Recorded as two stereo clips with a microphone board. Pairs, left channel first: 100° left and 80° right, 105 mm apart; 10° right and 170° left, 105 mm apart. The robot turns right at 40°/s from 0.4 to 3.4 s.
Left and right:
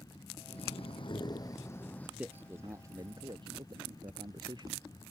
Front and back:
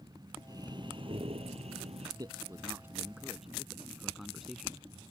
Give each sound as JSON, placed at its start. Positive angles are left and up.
{"t": 0.5, "sound": "breathing", "azimuth_deg": 115}
{"t": 2.2, "sound": "a man speaking", "azimuth_deg": -155}